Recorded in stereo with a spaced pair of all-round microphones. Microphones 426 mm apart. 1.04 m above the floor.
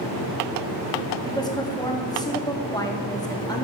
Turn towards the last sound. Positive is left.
turn(degrees=10)  # may be behind; listen again after turning